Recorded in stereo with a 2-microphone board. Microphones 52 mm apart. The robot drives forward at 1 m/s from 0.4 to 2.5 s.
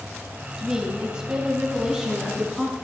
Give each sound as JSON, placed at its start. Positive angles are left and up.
{"t": 0.6, "sound": "a woman speaking", "side_deg": -15, "distance_m": 1.2}